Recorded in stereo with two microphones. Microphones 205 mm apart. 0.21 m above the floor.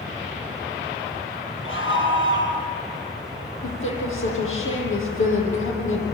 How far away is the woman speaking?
About 9 m.